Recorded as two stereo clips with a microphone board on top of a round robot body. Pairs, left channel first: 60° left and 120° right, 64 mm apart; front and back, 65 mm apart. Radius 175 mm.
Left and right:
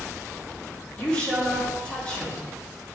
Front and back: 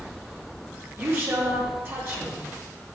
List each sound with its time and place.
1.0 s a woman speaking: 125° left, 4 m